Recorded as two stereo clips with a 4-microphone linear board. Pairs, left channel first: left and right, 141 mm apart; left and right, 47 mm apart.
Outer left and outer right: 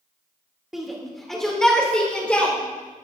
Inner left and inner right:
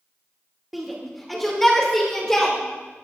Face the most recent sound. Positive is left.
turn(degrees=10)  # may be behind; listen again after turning